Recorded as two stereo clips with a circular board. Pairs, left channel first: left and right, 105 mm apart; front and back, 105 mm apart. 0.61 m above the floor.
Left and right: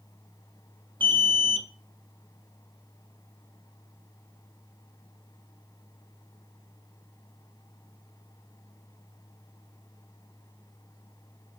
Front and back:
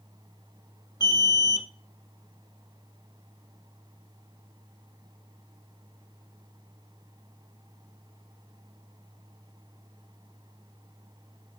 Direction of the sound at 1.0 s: 50° right.